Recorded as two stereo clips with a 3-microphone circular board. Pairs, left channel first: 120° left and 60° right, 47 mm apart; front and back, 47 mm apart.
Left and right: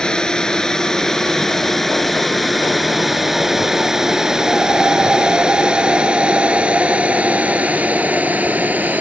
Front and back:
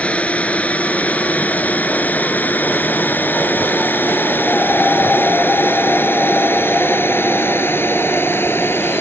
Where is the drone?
50° left; by 9.0 s 15° right.